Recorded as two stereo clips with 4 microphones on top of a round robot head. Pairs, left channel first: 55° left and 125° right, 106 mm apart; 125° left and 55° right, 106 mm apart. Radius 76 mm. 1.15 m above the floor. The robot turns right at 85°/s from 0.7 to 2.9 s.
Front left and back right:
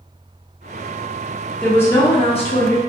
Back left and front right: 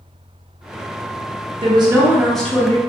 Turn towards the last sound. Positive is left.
turn(degrees=80)